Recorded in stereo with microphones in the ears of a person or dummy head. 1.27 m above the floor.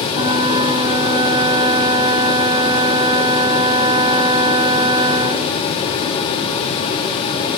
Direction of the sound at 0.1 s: 25° right (ahead or behind).